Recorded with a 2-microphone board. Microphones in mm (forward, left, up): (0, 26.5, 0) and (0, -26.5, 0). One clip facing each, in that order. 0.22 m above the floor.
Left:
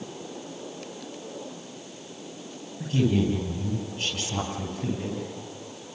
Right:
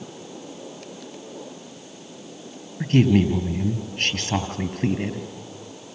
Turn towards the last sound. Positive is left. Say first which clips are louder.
# right 6 dB
turn(degrees=-60)  # may be behind; listen again after turning